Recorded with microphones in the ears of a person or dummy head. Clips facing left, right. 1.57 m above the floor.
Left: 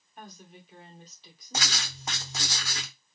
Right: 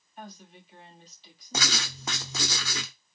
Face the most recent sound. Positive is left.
turn(degrees=-65)  # may be behind; listen again after turning